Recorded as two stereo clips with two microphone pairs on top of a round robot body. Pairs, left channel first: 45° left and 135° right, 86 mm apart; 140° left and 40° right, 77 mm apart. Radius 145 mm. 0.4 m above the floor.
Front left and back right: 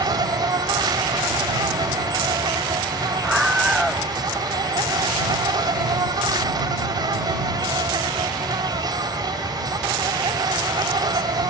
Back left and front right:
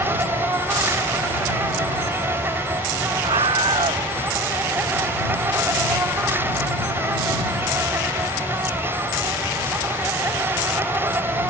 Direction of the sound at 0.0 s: 105° right.